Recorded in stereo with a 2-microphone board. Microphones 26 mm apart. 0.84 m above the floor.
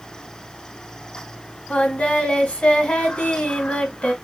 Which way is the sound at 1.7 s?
45° left (ahead or behind).